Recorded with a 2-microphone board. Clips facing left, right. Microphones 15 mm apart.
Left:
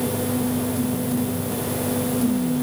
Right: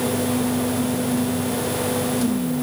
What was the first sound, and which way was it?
Only background noise.